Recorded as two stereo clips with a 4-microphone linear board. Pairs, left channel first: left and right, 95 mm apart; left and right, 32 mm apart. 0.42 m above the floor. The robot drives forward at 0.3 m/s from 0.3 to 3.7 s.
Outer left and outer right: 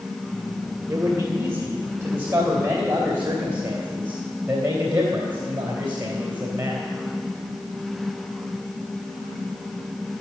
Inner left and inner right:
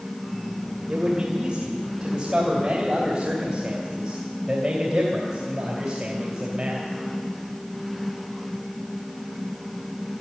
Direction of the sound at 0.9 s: 25° right (ahead or behind).